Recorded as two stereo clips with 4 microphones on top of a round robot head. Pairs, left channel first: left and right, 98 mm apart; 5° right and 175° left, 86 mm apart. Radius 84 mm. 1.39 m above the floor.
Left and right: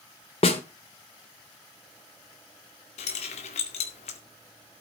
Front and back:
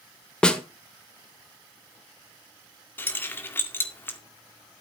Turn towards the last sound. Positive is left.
turn(degrees=60)